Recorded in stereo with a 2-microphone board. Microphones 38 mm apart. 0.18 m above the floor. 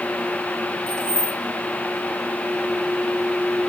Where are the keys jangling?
25° left (ahead or behind), 1.1 m.